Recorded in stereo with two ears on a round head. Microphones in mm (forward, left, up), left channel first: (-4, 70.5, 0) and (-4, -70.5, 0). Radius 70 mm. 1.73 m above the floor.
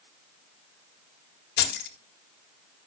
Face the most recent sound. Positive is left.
turn(degrees=70)  # may be behind; listen again after turning